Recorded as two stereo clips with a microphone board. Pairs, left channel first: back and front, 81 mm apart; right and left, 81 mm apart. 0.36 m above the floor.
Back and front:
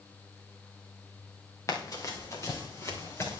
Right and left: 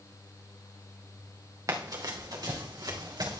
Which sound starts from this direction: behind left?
Running footsteps, at 1.7 s.